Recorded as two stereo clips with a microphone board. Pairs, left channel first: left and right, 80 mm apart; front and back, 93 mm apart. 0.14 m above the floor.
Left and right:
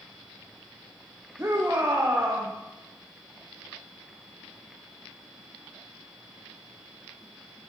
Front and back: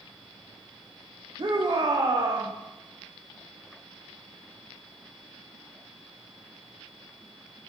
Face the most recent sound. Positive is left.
turn(degrees=-155)